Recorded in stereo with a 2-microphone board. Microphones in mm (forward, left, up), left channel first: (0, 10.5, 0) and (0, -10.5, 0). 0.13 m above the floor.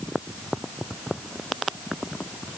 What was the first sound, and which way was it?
Only background noise.